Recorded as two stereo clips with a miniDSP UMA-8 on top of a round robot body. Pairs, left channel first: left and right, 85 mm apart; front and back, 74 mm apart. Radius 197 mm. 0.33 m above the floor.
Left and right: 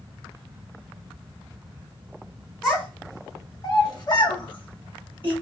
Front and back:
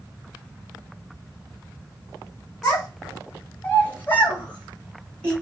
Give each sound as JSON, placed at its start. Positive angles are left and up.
{"t": 2.6, "sound": "a child speaking", "azimuth_deg": 10, "distance_m": 1.1}